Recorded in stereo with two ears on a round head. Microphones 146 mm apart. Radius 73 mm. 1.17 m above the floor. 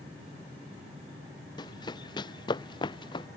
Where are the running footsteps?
25° left (ahead or behind); by 3.3 s 30° left (ahead or behind).